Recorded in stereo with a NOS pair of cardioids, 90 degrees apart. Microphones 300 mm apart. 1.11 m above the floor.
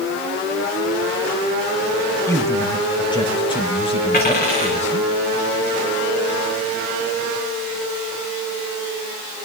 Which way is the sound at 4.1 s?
30° left.